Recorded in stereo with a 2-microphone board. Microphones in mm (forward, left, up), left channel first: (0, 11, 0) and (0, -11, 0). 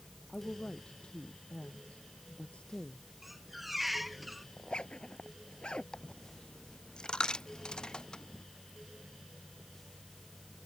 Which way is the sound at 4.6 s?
50° left (ahead or behind).